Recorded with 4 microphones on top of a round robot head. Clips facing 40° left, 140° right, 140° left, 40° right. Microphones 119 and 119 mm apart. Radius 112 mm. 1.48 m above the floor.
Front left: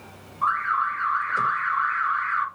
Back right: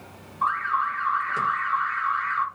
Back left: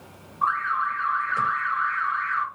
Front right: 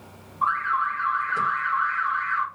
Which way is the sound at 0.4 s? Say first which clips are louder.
Even, front right 1 dB; 110° right.